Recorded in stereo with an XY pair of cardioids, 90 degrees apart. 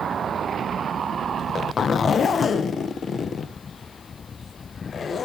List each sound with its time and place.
1.4 s a zipper: 55° left, 0.9 m